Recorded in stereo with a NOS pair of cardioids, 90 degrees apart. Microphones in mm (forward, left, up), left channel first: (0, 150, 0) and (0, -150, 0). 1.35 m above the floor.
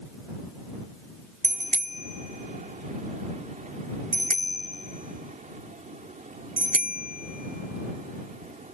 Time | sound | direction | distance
1.4 | a bicycle bell | 25° right | ?